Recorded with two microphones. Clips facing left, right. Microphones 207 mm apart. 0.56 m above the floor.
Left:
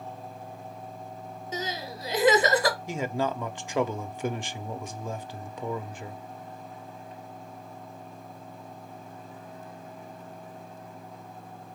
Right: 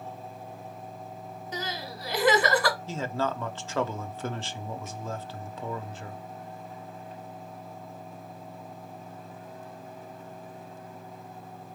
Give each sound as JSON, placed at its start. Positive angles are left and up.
{"t": 1.5, "sound": "crying", "side_deg": 20, "distance_m": 1.3}
{"t": 2.9, "sound": "a man speaking", "side_deg": 15, "distance_m": 0.6}